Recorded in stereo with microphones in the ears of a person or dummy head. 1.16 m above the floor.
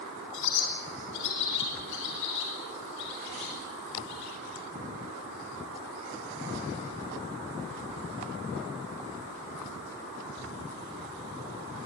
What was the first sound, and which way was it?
A bird, 70° left (ahead or behind).